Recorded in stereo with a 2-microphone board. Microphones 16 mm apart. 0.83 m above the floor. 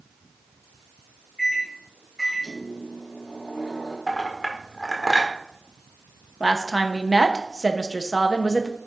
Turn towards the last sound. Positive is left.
turn(degrees=-30)  # may be behind; listen again after turning